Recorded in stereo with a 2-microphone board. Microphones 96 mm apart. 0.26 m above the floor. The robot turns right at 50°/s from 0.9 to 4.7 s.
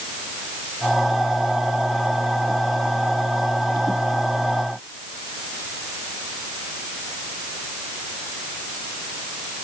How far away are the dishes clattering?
I don't hear dishes clattering.